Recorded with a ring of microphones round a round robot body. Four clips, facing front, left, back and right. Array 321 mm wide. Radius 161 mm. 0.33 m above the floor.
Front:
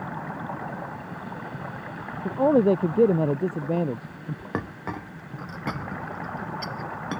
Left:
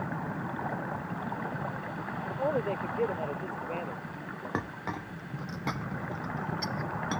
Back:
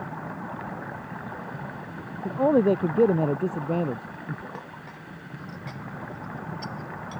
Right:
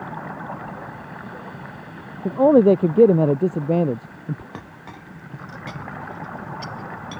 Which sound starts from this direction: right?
A man speaking, at 2.2 s.